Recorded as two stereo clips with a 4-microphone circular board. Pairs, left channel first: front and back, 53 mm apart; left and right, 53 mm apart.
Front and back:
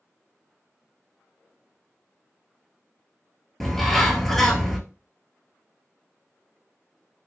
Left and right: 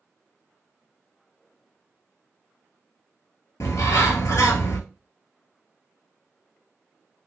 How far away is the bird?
About 0.7 m.